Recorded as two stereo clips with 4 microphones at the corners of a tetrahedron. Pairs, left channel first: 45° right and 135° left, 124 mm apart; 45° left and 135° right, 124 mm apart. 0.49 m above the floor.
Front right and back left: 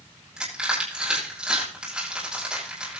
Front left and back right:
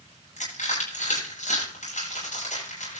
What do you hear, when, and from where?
0.4 s crushing: 50° left, 10 m